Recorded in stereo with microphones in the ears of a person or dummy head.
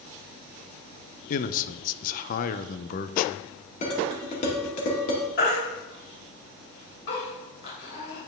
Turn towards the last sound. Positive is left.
turn(degrees=65)  # may be behind; listen again after turning